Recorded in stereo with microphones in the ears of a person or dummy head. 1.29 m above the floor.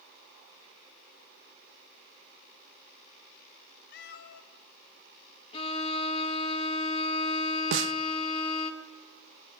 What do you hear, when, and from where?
3.9 s a cat meowing: 65° left (ahead or behind), 1.4 m
5.5 s a violin: 30° left (ahead or behind), 2 m
7.7 s a snare drum: 70° right (ahead or behind), 0.7 m